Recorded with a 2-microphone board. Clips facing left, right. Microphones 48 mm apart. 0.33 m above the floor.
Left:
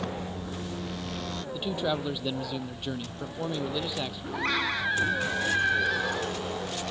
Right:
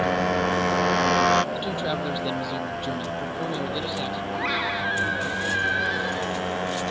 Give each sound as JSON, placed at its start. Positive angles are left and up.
{"t": 0.0, "sound": "a motorcycle", "side_deg": -70}
{"t": 1.5, "sound": "a man speaking", "side_deg": 0}
{"t": 4.3, "sound": "a scream", "side_deg": -5}